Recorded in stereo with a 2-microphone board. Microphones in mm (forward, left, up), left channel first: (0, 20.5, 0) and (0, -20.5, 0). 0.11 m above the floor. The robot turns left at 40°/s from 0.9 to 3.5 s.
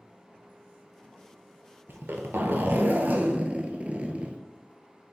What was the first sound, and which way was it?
A zipper, 75° right.